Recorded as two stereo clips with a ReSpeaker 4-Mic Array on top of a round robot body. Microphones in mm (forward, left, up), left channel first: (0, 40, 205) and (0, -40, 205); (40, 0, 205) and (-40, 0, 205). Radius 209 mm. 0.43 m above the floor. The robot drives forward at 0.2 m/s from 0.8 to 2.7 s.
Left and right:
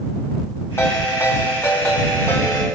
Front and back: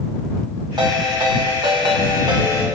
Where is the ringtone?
150° left, 2.5 m; by 2.6 s 155° left, 3 m.